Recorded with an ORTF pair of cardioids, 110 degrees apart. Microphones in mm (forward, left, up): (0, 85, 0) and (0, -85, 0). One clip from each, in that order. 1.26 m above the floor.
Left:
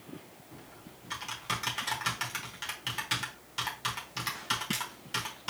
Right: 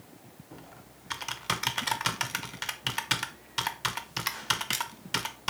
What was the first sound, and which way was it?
Typing on a keyboard, 35° right.